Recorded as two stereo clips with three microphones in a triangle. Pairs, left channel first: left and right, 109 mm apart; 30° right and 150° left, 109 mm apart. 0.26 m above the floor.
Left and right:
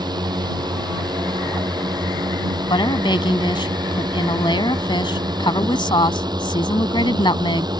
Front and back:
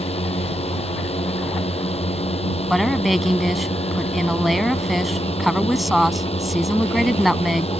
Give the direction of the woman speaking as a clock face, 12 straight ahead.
10 o'clock.